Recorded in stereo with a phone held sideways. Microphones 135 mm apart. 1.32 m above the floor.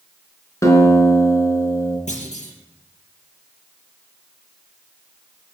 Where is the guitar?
20° left (ahead or behind), 4 m.